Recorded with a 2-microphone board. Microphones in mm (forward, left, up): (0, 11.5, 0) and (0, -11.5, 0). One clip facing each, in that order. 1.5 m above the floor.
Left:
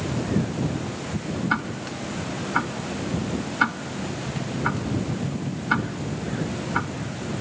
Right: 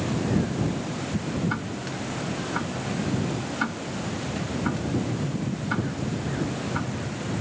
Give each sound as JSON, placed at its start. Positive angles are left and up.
{"t": 1.5, "sound": "ticking", "side_deg": 30}